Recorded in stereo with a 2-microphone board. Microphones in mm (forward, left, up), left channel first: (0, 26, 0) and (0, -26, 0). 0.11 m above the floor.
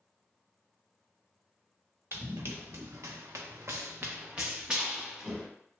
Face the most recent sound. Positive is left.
turn(degrees=-5)  # may be behind; listen again after turning